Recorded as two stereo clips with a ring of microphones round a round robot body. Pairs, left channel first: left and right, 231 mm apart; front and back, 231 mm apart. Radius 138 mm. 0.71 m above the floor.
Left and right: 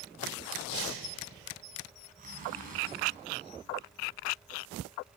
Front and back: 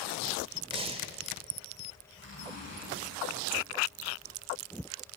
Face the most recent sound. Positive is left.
turn(degrees=-145)